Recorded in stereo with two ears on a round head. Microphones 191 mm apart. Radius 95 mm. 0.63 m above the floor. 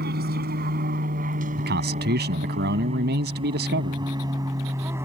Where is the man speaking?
50° right (ahead or behind).